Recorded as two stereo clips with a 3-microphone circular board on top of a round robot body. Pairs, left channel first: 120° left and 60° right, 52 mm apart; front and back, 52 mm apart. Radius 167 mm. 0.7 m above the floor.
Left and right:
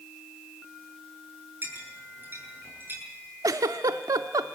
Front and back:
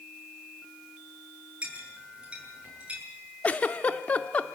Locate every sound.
1.6 s a clink: 110° right, 8 m
3.4 s a giggle: 60° right, 0.7 m